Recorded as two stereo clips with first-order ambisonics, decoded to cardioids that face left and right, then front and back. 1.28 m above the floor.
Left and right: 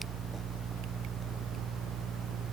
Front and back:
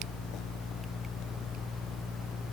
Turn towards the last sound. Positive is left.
No sound to turn to.